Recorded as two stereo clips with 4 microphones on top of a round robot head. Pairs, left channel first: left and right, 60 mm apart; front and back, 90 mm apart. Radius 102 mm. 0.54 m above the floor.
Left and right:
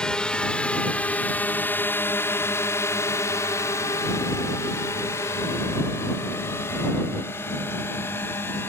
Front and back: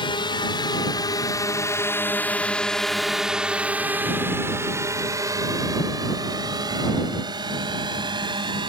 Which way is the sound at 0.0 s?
15° left.